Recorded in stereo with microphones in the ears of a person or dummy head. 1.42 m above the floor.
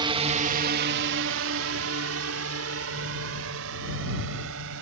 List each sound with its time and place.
0.0 s a drone: 25° right (ahead or behind); by 4.8 s 70° right (ahead or behind)